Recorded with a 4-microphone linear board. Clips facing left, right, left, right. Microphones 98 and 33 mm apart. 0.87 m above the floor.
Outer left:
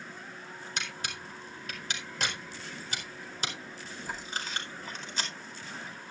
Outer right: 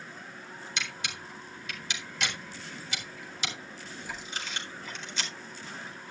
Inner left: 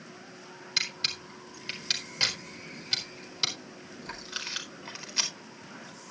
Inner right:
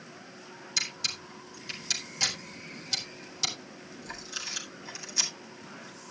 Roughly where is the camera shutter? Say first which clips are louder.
Even, inner left 2 dB; left.